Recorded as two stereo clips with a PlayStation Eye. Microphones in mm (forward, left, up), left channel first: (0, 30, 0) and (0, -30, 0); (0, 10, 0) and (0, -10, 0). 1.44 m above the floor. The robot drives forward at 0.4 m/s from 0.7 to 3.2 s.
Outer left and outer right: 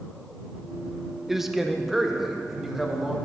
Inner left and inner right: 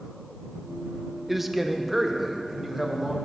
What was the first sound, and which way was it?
A man speaking, 5° right (ahead or behind).